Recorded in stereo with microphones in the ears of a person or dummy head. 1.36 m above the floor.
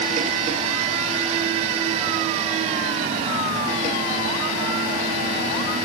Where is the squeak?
No squeak in this recording.